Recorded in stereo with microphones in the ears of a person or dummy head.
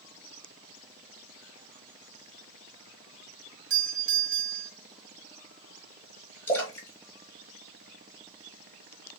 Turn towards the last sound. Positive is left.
turn(degrees=10)  # may be behind; listen again after turning